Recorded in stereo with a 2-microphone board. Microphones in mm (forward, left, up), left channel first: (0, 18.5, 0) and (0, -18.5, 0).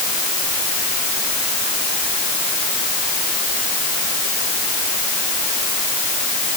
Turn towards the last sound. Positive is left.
No sound to turn to.